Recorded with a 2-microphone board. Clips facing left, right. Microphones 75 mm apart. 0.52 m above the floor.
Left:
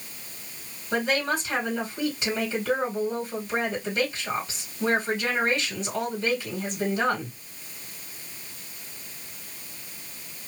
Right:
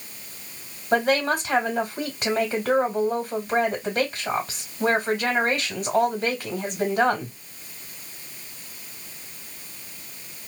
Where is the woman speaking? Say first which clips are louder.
Right 4 dB; 55° right (ahead or behind), 1.7 m.